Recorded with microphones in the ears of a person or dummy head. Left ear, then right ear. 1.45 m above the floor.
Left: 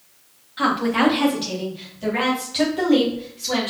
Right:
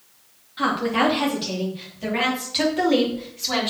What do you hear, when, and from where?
0.6 s a woman speaking: 5° left (ahead or behind), 2.5 m; by 3.7 s 20° right (ahead or behind), 3.5 m